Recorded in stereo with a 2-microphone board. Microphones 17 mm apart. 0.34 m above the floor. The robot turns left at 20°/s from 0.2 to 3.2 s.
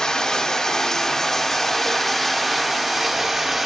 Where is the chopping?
No chopping in this recording.